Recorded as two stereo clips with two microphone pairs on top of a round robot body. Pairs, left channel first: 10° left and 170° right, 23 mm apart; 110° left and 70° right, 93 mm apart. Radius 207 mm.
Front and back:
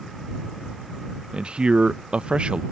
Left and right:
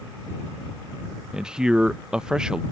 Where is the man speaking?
155° right.